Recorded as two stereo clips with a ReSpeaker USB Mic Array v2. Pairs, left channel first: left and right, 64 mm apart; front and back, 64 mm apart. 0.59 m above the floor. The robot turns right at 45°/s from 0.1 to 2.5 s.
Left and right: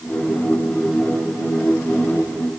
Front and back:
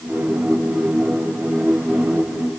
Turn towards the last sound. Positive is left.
No sound to turn to.